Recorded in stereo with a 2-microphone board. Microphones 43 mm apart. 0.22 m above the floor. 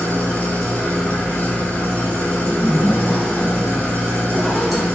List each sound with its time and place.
0.0 s an engine running: 40° left (ahead or behind), 1.4 m
2.4 s a zipper: 5° left (ahead or behind), 1.1 m